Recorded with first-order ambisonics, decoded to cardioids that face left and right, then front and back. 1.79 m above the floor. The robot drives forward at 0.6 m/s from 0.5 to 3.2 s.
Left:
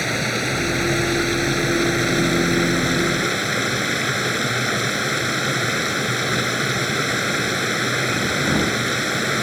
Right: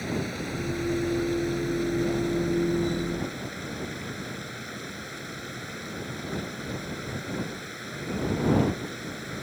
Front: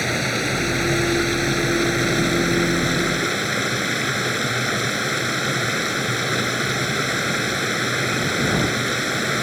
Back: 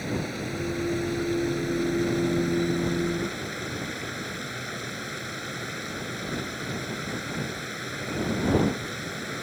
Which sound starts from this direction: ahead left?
Running water, at 0.0 s.